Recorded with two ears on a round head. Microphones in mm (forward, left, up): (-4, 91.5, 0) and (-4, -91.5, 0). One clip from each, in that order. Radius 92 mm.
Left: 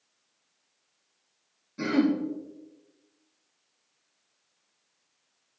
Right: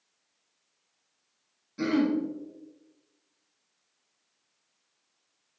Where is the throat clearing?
15° right (ahead or behind), 1.1 m.